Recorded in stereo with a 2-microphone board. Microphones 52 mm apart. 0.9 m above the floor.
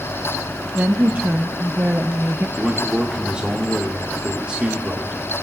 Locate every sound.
0.8 s a woman speaking: 35° right (ahead or behind), 0.6 m
2.6 s a man speaking: 15° right (ahead or behind), 1.2 m